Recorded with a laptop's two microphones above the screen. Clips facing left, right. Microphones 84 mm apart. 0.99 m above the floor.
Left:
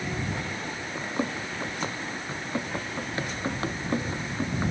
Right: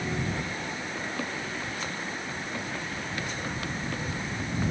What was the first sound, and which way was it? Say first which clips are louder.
Running footsteps: left 6 dB; 25° left (ahead or behind).